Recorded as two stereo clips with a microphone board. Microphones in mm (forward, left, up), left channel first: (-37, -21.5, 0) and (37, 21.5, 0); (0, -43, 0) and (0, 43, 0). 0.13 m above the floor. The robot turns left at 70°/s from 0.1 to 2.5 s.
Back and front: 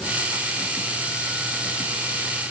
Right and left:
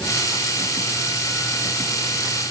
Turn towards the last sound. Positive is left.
No sound to turn to.